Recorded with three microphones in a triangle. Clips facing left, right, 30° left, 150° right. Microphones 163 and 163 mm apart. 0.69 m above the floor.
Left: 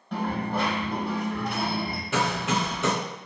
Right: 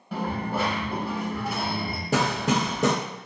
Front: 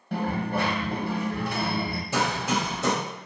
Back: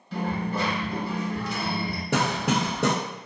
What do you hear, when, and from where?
0.1 s a dropped coin: 5° right, 0.6 m
2.1 s hammering: 135° right, 0.8 m